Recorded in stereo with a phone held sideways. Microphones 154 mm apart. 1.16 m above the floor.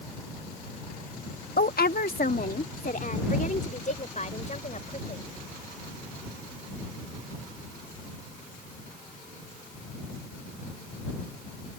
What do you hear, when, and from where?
1.6 s a woman speaking: 85° left; by 5.2 s 50° left (ahead or behind)